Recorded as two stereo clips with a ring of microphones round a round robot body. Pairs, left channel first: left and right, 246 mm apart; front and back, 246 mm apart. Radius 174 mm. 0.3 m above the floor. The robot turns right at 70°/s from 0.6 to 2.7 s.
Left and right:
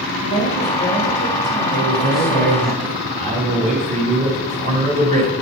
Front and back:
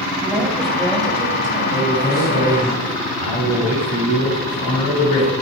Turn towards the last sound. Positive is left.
turn(degrees=-45)